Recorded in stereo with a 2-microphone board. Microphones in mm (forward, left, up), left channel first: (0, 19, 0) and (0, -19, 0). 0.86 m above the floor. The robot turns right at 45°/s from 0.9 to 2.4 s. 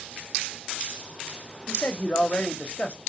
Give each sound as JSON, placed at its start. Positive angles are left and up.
{"t": 1.7, "sound": "a man speaking", "azimuth_deg": 85, "distance_m": 0.6}